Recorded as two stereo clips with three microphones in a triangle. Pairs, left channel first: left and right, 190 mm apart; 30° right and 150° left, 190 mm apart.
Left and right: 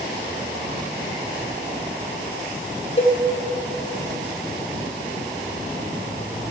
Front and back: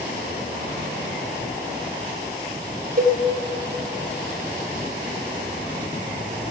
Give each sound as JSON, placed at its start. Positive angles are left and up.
{"t": 3.0, "sound": "a cowbell", "azimuth_deg": 130, "distance_m": 0.9}